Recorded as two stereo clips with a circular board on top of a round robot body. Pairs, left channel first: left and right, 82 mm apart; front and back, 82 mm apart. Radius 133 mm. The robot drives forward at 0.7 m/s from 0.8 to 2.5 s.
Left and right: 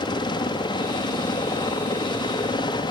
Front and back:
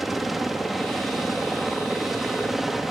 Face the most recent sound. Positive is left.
turn(degrees=95)